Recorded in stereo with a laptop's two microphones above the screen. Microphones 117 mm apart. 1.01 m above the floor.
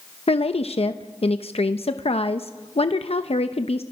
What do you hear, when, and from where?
0.3 s a woman speaking: 55° left (ahead or behind), 0.7 m